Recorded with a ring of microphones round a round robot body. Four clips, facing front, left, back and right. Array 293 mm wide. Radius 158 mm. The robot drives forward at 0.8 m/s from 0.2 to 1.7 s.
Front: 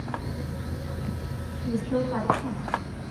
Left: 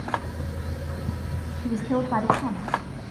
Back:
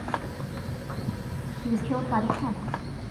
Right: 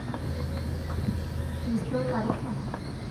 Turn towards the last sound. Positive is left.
turn(degrees=125)